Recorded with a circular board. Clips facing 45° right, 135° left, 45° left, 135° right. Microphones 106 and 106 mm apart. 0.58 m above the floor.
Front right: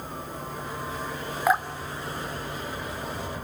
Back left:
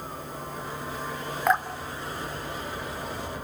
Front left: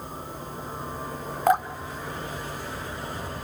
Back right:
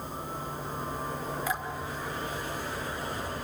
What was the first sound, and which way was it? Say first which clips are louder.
Dripping: front right 1 dB, front left 10 dB; 40° left.